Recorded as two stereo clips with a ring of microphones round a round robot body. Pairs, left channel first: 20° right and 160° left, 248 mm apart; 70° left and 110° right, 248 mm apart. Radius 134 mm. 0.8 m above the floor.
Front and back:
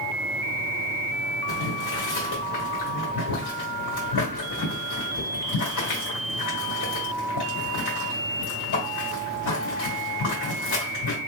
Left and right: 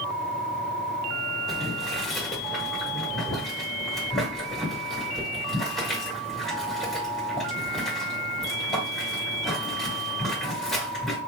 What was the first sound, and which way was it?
Boiling, 20° right.